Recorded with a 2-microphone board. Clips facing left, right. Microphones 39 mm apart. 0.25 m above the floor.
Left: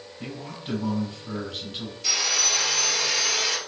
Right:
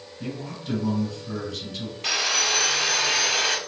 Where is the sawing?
45° right (ahead or behind), 0.9 m.